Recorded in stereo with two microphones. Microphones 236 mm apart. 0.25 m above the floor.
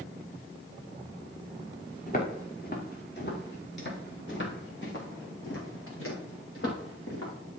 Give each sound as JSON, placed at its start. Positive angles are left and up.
{"t": 2.1, "sound": "footsteps", "side_deg": 35, "distance_m": 4.5}